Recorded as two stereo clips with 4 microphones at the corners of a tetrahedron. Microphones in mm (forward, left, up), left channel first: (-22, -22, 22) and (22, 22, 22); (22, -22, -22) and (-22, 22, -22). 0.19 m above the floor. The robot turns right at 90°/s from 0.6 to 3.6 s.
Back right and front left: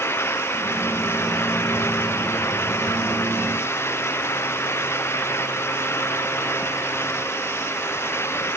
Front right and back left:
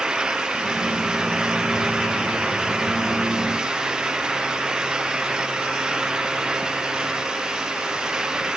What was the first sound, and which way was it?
Only background noise.